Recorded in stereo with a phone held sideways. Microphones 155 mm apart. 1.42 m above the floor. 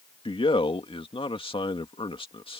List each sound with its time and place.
0.2 s a man speaking: 35° left (ahead or behind)